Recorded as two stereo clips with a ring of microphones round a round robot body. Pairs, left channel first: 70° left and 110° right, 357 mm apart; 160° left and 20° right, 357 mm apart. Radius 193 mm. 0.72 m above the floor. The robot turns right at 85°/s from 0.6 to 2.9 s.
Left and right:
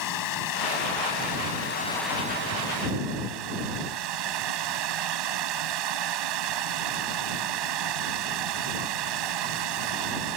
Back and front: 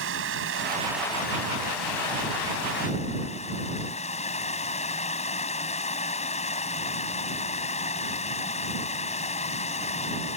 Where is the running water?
35° left; by 10.4 s 130° right.